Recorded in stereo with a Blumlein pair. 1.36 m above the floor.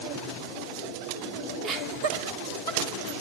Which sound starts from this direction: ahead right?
Laughter, at 1.6 s.